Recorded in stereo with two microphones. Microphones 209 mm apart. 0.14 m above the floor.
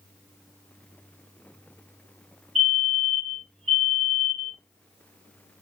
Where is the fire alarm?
35° right (ahead or behind), 3.5 m.